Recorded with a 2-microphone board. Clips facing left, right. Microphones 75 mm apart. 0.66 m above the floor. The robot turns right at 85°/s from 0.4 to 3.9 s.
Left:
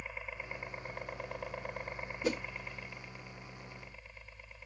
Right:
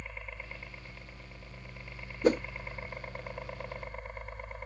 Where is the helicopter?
5° left; by 4.7 s 55° right.